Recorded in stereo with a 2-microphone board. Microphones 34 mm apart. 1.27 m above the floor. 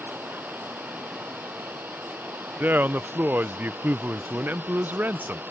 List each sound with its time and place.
0.0 s running water: 90° right
2.6 s a man speaking: 60° right (ahead or behind)